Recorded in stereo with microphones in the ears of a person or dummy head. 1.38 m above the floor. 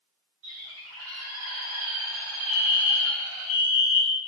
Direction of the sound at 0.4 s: 80° right.